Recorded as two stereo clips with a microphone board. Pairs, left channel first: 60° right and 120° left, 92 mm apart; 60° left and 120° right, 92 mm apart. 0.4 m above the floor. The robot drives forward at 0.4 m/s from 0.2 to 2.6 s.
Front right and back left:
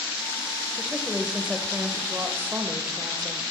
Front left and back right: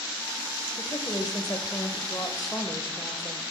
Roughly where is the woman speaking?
Ahead left.